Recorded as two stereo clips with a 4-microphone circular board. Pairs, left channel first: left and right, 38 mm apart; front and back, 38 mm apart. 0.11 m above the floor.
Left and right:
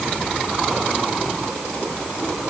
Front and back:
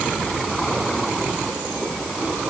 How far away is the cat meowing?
No cat meowing in this recording.